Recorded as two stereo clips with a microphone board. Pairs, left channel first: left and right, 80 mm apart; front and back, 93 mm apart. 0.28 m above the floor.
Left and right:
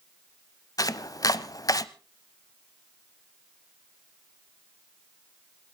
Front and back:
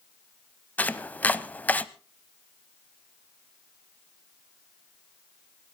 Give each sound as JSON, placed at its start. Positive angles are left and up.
{"t": 0.8, "sound": "chopping", "azimuth_deg": 70, "distance_m": 0.7}